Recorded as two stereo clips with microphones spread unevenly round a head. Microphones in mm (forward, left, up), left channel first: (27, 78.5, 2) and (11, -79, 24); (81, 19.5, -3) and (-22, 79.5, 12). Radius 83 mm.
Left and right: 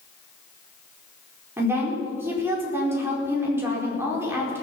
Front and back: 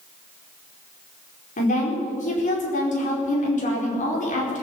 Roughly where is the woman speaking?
Ahead.